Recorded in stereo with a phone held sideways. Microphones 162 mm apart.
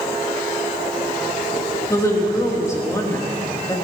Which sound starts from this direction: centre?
A woman speaking, at 1.9 s.